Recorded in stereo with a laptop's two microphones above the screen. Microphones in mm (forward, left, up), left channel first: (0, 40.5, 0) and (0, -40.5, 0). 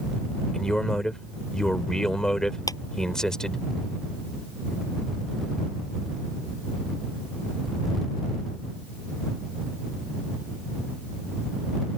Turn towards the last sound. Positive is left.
turn(degrees=45)  # may be behind; listen again after turning